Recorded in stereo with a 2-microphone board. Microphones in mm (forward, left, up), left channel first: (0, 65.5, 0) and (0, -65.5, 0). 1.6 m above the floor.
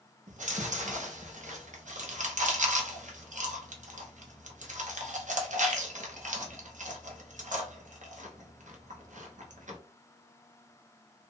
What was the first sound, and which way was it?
Chewing, 75° right (ahead or behind).